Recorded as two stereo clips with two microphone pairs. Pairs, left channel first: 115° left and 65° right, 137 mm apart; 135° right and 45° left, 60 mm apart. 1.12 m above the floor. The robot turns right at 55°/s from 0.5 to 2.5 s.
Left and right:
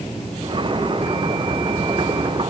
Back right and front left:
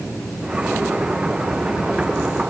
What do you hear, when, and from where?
Only background noise.